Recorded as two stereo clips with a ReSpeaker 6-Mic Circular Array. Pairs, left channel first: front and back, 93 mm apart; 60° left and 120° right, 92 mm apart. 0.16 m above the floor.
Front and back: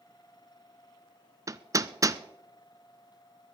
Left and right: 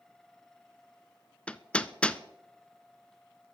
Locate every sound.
1.5 s hammering: 135° left, 0.5 m